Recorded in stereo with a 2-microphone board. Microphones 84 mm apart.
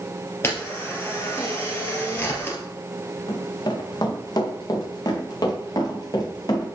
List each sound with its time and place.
0.4 s a camera shutter: 30° left (ahead or behind), 2.5 m
3.3 s running footsteps: 50° left (ahead or behind), 3.5 m; by 6.7 s 45° left (ahead or behind), 5 m